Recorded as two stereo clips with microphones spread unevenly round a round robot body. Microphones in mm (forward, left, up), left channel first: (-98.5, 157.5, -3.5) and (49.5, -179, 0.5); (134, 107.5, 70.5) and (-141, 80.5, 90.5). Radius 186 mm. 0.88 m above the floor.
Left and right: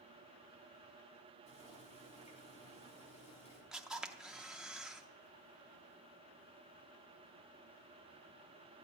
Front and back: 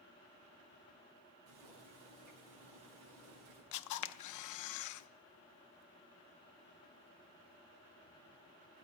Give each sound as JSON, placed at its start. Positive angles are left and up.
{"t": 1.5, "sound": "boiling", "azimuth_deg": -175, "distance_m": 6.0}
{"t": 3.7, "sound": "a camera shutter", "azimuth_deg": 20, "distance_m": 0.5}